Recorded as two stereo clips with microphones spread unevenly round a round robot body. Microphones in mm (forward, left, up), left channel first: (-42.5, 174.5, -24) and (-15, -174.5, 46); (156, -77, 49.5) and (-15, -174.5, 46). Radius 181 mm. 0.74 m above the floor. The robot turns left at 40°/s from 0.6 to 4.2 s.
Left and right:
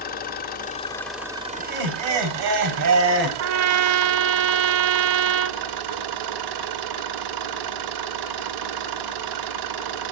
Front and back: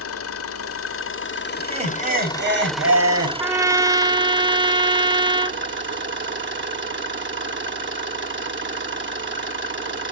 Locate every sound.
0.0 s an engine running: 25° left, 1.6 m; by 10.1 s 120° right, 1.6 m
1.6 s laughter: 85° right, 5 m; by 3.3 s 150° right, 5 m
3.4 s a trumpet: 80° right, 0.8 m; by 5.6 s 115° right, 0.8 m